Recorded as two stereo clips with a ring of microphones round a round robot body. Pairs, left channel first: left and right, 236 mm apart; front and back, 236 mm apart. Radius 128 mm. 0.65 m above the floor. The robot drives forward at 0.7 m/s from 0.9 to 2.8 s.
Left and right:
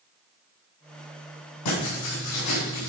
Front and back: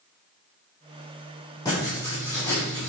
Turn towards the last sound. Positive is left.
turn(degrees=85)